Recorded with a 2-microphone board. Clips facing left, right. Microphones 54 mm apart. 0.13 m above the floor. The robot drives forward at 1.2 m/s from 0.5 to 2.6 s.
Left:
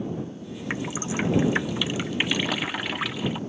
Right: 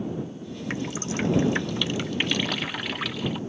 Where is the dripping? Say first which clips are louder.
Left 1 dB; 15° left (ahead or behind); by 3.4 s 10° left (ahead or behind).